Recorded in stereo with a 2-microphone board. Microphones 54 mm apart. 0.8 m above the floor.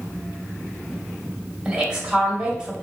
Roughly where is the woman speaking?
Centre.